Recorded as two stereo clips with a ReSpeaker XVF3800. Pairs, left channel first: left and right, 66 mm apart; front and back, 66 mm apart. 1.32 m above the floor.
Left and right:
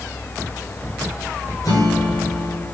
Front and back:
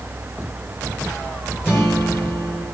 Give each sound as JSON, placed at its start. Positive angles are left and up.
{"t": 1.6, "sound": "a guitar", "azimuth_deg": 60, "distance_m": 6.0}